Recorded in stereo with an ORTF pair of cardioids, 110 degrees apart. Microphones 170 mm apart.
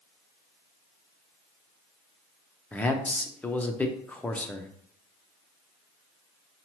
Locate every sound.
2.7 s a man speaking: 10° left, 0.6 m